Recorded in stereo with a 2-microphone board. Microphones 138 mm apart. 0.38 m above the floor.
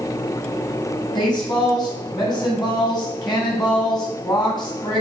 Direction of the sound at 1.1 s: 30° left (ahead or behind).